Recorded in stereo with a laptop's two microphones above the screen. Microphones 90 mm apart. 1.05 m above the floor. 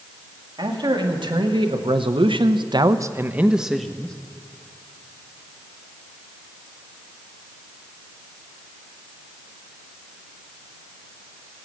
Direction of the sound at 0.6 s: 60° right (ahead or behind).